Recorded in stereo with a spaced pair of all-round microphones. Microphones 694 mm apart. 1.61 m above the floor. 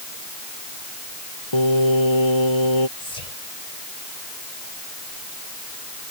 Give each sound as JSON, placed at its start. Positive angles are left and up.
{"t": 1.5, "sound": "singing", "side_deg": 40}
{"t": 3.0, "sound": "whispering", "side_deg": 60}